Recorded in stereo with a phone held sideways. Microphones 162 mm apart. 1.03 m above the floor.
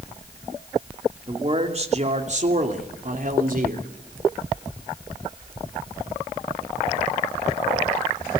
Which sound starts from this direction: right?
A man speaking, at 1.3 s.